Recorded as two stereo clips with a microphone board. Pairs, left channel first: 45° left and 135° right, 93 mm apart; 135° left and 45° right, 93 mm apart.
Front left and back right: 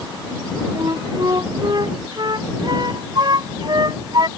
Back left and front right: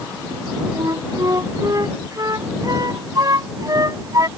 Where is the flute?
95° right.